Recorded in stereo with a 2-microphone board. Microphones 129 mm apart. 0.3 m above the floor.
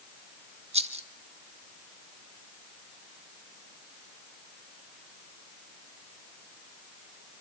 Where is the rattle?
55° right (ahead or behind), 1.9 m.